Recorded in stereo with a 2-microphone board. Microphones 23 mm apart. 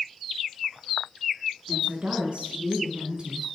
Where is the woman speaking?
45° right (ahead or behind), 7.5 m; by 3.5 s 30° right (ahead or behind), 5.5 m.